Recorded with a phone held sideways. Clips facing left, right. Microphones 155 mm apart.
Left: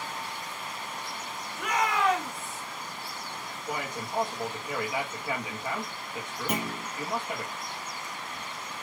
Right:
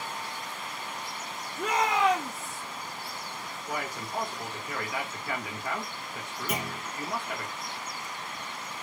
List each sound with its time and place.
1.6 s a shout: 35° right (ahead or behind), 1.1 m; by 2.6 s 5° left (ahead or behind), 1.0 m
3.7 s a man speaking: 20° left (ahead or behind), 1.4 m
6.5 s a clunk: 50° left (ahead or behind), 2 m